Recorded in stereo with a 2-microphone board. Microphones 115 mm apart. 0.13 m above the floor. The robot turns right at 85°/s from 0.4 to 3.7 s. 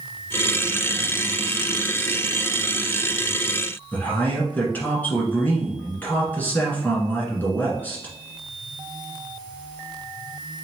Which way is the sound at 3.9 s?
15° left (ahead or behind).